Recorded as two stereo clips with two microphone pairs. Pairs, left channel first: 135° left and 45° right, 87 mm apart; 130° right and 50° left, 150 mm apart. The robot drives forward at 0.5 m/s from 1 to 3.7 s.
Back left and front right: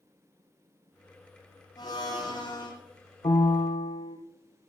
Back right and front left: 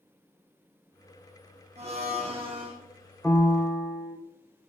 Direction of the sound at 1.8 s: 95° left.